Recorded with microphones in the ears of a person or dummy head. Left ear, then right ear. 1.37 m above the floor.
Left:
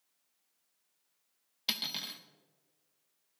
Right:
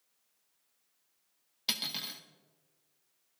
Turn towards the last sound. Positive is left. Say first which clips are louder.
# even
turn(degrees=10)  # may be behind; listen again after turning